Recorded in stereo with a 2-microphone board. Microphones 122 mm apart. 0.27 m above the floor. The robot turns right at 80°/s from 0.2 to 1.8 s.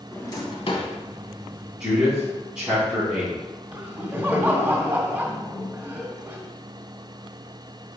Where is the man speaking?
5° right (ahead or behind), 2.5 m.